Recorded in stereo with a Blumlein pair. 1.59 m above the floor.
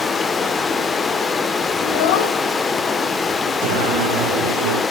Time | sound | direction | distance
0.0 | running water | 15° left | 1.1 m
1.8 | a child speaking | 50° left | 2.5 m
3.6 | singing | 60° right | 1.9 m